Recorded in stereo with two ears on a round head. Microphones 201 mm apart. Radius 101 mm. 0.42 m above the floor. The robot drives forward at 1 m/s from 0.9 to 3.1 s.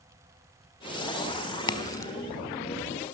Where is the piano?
No piano in this recording.